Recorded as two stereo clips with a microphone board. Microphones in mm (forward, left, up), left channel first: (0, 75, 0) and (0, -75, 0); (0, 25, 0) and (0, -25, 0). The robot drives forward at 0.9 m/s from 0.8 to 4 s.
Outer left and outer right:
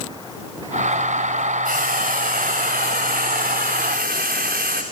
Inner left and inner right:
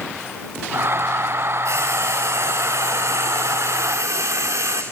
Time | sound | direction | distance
1.6 | frying | 65° right (ahead or behind) | 5 m